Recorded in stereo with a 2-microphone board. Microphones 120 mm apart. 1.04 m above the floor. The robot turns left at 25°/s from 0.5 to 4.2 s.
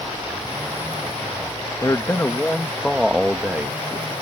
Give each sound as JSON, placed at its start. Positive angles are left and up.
{"t": 1.8, "sound": "a man speaking", "azimuth_deg": 30}